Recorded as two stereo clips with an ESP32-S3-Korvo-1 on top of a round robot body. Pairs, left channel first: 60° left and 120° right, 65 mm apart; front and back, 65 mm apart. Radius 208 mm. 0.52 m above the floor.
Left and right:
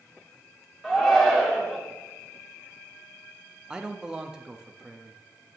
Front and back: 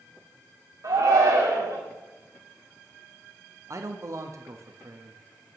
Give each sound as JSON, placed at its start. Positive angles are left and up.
{"t": 0.8, "sound": "a shout", "azimuth_deg": 150, "distance_m": 2.0}
{"t": 3.7, "sound": "a man speaking", "azimuth_deg": 165, "distance_m": 0.9}